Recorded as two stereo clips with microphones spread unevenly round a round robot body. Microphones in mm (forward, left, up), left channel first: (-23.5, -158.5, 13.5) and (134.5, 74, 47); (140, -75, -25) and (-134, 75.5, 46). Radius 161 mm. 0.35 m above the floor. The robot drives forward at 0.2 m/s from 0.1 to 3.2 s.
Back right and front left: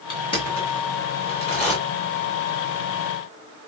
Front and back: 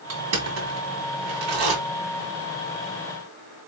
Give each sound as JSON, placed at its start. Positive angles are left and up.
{"t": 0.1, "sound": "crushing", "azimuth_deg": -175, "distance_m": 1.6}